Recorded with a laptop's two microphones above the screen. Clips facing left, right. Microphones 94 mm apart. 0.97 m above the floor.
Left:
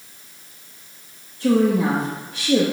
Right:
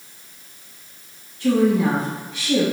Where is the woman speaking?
35° left (ahead or behind), 1.7 m.